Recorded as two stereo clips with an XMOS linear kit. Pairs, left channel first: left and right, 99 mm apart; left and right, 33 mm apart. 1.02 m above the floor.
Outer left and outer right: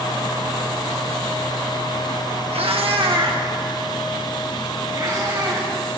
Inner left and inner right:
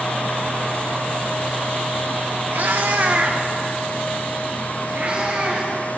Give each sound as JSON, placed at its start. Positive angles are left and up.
{"t": 2.5, "sound": "a cat meowing", "side_deg": -70, "distance_m": 0.9}